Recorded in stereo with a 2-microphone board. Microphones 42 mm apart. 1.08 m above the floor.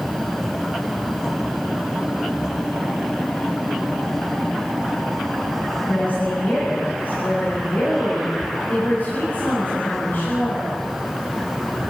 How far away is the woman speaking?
About 7.5 m.